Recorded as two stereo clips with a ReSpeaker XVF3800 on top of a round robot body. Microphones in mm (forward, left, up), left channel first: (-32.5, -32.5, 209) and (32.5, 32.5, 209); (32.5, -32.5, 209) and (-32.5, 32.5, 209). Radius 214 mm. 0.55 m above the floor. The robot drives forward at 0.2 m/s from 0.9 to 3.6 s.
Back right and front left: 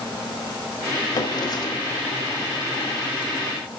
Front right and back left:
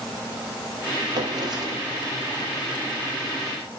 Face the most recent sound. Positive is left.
turn(degrees=180)